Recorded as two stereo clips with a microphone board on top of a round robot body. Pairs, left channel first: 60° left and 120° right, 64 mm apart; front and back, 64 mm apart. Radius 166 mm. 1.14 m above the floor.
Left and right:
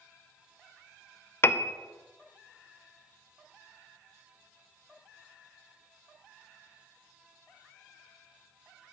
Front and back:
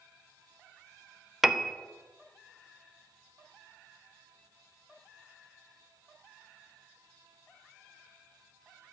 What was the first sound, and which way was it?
A piano, 100° left.